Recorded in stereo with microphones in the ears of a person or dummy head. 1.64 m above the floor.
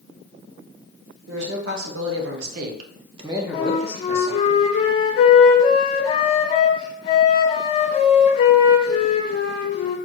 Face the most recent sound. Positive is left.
turn(degrees=30)  # may be behind; listen again after turning